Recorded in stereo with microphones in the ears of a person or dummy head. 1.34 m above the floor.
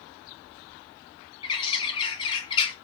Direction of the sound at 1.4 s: 30° left (ahead or behind).